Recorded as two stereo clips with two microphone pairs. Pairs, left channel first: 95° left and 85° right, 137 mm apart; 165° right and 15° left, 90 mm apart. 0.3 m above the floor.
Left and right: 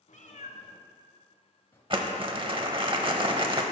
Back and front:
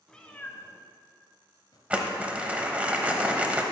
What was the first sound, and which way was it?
A cat meowing, 115° left.